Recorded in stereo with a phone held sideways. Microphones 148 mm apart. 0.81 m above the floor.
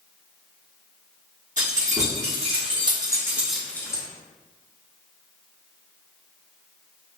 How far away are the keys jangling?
About 1.2 m.